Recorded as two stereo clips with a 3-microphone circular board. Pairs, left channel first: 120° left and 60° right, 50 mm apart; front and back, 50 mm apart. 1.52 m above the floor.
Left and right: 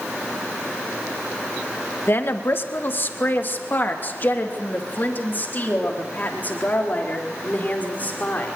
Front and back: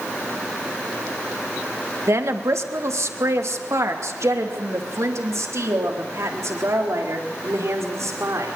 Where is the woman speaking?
160° left, 1.8 m; by 8.6 s 175° left, 5 m.